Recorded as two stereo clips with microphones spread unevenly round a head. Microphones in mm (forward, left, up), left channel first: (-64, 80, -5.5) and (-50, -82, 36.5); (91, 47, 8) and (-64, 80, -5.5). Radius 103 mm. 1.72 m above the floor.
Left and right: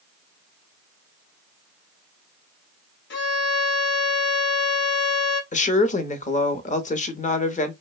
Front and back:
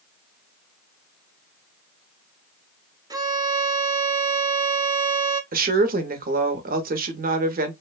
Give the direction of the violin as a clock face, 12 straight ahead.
9 o'clock.